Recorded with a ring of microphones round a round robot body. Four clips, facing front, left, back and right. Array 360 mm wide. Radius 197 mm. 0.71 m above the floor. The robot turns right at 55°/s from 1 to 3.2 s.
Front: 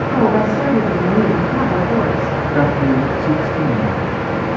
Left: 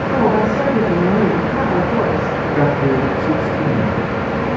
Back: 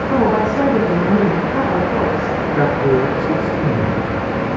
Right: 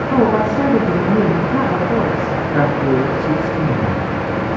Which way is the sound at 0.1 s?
145° right.